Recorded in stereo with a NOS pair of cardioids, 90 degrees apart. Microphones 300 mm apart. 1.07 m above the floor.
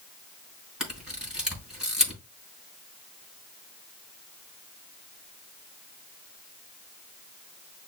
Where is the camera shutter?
Straight ahead, 4.5 m.